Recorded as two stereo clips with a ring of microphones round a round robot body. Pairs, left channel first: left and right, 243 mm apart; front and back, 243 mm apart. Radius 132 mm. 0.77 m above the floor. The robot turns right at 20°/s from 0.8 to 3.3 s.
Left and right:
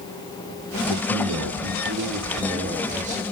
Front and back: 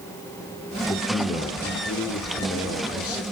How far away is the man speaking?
About 2.5 m.